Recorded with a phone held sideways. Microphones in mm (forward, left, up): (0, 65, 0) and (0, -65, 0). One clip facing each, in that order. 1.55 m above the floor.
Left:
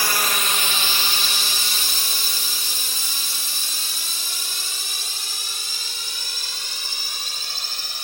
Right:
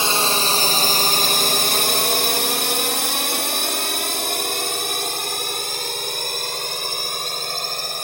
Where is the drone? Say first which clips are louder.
Right 4 dB; 25° right (ahead or behind); by 8.0 s 50° right (ahead or behind).